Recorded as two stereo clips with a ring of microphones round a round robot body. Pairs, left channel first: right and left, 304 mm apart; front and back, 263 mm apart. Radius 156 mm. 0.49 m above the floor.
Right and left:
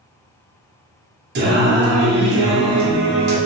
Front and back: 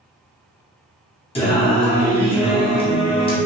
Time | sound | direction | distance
1.4 | singing | 55° left | 0.7 m